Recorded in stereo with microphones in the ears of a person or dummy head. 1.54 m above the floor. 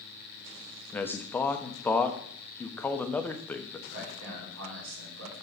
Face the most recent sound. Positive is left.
turn(degrees=-80)